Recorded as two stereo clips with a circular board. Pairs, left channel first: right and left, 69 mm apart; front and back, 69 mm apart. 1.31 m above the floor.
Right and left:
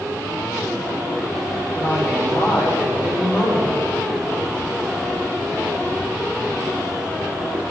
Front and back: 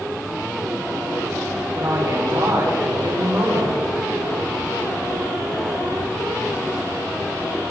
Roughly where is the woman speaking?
Behind.